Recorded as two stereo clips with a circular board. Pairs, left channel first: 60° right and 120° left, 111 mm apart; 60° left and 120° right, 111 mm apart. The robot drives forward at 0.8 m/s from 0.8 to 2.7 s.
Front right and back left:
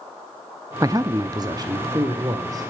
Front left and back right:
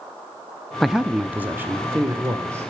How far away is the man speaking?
About 0.5 m.